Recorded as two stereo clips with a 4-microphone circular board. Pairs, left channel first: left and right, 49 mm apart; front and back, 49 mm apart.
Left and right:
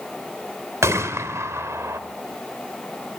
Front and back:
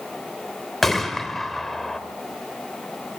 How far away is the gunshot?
About 2.5 m.